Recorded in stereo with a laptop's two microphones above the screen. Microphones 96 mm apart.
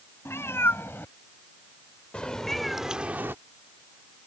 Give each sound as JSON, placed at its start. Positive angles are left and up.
{"t": 0.2, "sound": "a cat meowing", "side_deg": 30}